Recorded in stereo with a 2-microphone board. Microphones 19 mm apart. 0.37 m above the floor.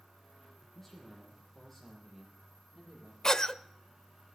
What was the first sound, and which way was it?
A man speaking, centre (ahead or behind).